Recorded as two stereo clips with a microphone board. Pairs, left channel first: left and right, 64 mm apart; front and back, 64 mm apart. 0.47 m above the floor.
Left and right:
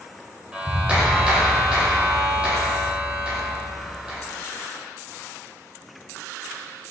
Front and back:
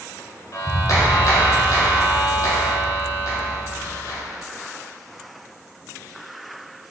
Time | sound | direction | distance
0.5 | a clap | 20° right | 1.7 m